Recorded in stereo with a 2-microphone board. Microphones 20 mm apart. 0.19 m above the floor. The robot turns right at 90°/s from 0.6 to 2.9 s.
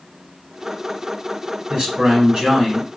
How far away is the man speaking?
About 1.6 m.